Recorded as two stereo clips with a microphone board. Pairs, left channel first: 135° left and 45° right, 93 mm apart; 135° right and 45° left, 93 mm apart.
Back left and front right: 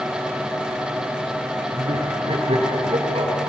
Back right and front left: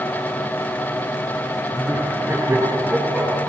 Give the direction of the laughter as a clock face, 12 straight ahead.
1 o'clock.